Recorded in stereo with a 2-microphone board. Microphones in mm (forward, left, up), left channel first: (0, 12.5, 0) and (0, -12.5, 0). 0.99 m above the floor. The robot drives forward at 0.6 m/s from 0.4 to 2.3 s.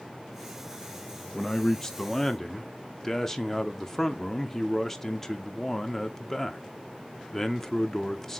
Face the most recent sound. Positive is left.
turn(degrees=20)  # may be behind; listen again after turning